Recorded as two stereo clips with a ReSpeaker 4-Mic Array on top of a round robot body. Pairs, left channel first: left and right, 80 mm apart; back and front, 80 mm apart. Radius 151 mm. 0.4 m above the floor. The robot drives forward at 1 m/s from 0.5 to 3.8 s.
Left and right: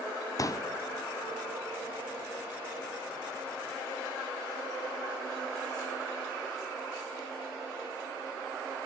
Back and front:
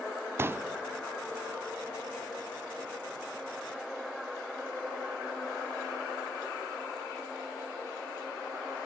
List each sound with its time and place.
0.4 s a pop: 55° left, 0.8 m; by 0.7 s 70° left, 0.7 m